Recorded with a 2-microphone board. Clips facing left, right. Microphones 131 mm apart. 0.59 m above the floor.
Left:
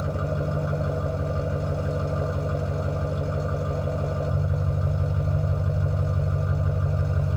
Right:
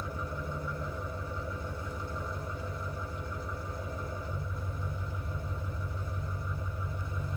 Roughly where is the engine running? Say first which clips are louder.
Left 10 dB; left.